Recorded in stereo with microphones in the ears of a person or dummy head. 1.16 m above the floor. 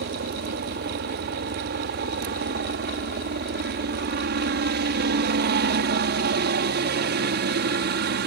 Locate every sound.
0.0 s a helicopter: 50° right (ahead or behind)